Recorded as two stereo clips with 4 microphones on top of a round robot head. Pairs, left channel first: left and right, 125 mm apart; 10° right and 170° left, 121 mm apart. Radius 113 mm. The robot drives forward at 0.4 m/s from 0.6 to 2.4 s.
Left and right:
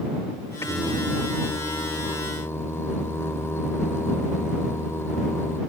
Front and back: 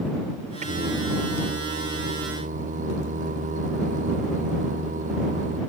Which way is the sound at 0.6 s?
155° left.